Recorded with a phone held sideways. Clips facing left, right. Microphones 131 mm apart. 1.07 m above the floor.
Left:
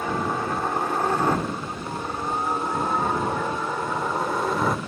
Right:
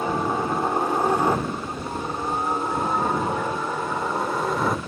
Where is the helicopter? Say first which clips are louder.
Right 2 dB; 20° right (ahead or behind); by 4.9 s centre (ahead or behind).